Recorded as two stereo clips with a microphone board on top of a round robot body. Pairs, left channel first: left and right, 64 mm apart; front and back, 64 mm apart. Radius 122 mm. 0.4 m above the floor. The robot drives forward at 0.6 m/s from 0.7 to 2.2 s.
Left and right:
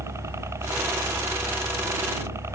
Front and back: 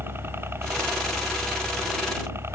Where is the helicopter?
130° right; by 2.5 s 135° right.